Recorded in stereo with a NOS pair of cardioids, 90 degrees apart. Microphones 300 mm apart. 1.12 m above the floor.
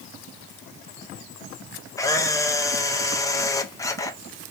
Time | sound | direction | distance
2.0 | a camera shutter | 10° left | 0.7 m